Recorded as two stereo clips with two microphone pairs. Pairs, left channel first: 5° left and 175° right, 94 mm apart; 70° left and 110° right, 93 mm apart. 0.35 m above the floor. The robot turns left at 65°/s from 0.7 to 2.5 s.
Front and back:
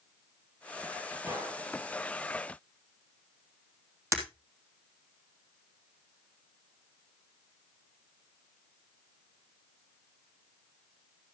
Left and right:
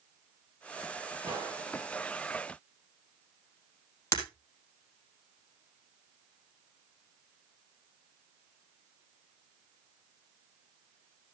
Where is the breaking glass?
125° left, 3 m.